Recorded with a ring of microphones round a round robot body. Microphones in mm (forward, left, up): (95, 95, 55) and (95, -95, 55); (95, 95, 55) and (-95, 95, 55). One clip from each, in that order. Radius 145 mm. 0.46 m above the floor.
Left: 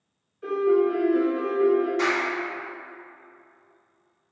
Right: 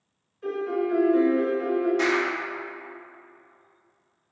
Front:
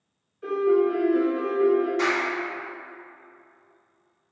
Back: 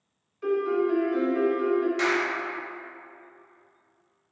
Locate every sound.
0.4 s a piano: 175° left, 1.2 m
2.0 s a clap: straight behind, 1.7 m